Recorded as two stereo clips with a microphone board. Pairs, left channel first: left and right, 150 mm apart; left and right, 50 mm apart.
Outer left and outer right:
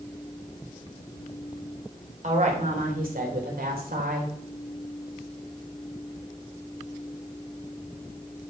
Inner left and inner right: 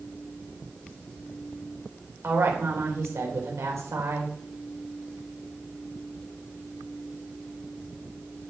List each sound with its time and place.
2.2 s a woman speaking: 55° right (ahead or behind), 3 m; by 4.3 s 80° right, 3 m